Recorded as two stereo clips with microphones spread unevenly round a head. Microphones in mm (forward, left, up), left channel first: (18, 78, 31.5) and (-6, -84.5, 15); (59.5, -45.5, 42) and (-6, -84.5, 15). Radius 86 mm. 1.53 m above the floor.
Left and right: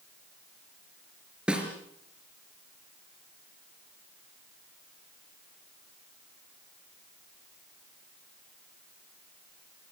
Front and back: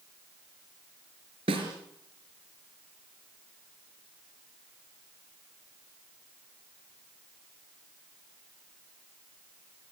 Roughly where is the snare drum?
Behind.